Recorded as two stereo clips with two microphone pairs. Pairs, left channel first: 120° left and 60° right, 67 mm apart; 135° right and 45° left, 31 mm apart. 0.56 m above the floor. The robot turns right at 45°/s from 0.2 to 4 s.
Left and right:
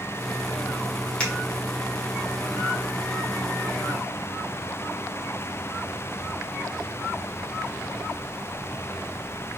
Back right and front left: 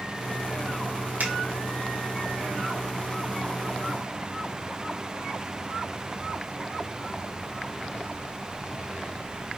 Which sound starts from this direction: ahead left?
A finger snap, at 1.2 s.